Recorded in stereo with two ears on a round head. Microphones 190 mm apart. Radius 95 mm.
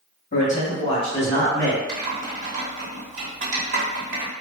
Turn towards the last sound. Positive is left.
turn(degrees=-40)  # may be behind; listen again after turning